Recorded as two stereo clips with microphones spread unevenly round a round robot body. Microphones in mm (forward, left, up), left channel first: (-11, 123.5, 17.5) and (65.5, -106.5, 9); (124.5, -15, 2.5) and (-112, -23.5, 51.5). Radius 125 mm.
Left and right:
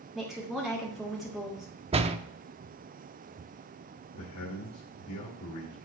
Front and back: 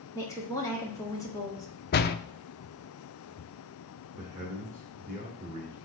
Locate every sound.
0.1 s a woman speaking: 15° left, 1.3 m
1.9 s a door slam: 15° right, 0.6 m
4.1 s a man speaking: 115° left, 1.6 m